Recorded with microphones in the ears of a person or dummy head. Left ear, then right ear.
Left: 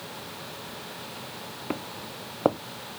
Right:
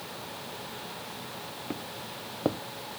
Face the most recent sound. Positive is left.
turn(degrees=35)  # may be behind; listen again after turning